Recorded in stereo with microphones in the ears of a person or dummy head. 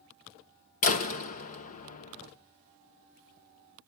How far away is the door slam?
About 0.5 m.